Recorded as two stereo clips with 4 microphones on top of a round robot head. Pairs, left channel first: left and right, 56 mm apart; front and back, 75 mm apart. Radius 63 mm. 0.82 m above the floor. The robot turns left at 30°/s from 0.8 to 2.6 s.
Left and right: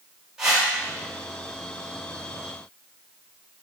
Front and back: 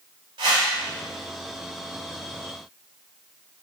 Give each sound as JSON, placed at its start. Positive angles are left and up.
{"t": 0.4, "sound": "a whoosh", "azimuth_deg": -165, "distance_m": 4.0}